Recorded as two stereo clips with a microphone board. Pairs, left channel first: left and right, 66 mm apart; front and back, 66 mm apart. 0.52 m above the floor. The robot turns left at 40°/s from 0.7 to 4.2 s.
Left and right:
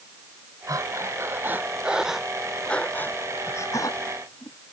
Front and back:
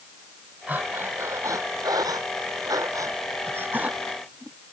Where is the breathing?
115° right; by 4.6 s 105° left.